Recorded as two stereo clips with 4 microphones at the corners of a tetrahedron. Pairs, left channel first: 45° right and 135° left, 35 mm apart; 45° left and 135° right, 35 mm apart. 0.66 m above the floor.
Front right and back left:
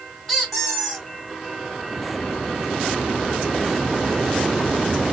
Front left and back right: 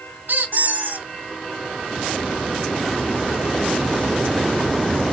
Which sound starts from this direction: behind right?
A squeak, at 0.3 s.